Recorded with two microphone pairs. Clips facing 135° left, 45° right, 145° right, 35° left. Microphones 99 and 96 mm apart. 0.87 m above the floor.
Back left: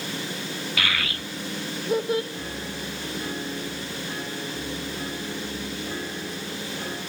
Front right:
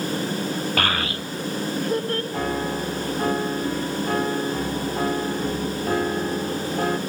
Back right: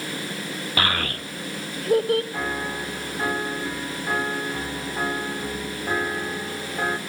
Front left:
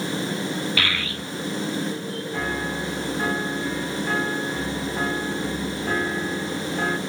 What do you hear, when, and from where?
0.8 s a child speaking: 90° right, 0.5 m; by 2.2 s 150° right, 0.9 m
2.3 s a piano: 60° right, 0.8 m